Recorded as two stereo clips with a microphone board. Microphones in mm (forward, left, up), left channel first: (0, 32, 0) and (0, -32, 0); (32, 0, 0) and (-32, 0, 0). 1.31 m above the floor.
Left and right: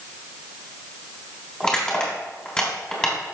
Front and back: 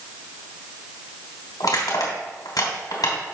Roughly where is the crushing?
Ahead.